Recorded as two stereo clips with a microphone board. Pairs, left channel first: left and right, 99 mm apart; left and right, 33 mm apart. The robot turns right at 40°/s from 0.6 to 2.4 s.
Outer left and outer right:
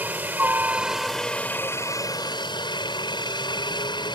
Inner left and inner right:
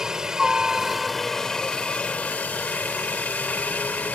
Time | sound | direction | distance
0.0 | a helicopter | 20° right | ?